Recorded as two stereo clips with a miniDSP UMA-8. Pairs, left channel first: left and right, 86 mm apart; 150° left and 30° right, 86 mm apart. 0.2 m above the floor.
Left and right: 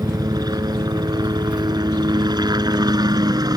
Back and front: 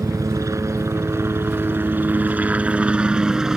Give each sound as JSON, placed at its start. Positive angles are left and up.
{"t": 0.0, "sound": "a helicopter", "azimuth_deg": -65}